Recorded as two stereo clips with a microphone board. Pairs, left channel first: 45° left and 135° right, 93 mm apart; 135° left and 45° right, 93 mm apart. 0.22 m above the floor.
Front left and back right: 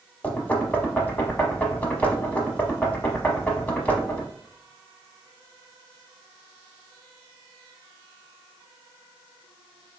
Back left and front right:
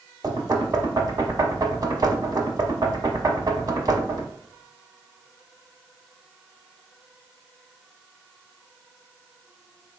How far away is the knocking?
About 0.9 m.